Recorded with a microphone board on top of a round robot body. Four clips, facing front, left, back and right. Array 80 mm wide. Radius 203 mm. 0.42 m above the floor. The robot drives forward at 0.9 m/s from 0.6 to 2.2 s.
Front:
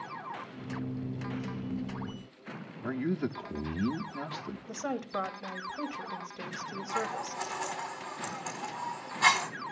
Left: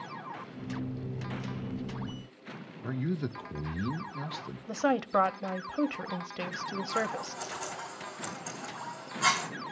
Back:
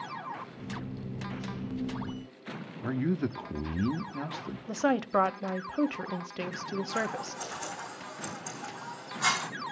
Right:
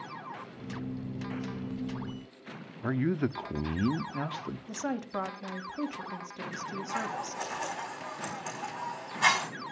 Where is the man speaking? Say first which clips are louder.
Right 5 dB, back 2 dB; 95° right, 1.2 m.